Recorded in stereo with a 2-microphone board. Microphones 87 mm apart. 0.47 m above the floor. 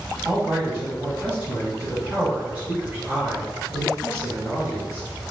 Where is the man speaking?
15° right (ahead or behind), 3 m.